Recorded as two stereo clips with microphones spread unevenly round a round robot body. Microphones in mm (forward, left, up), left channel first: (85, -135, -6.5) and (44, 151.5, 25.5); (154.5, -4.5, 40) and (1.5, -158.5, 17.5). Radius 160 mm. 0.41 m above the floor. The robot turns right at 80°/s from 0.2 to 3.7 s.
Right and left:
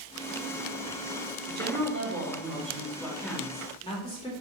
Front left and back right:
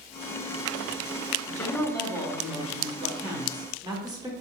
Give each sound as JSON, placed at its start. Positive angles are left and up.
{"t": 1.5, "sound": "a woman speaking", "azimuth_deg": 65, "distance_m": 0.9}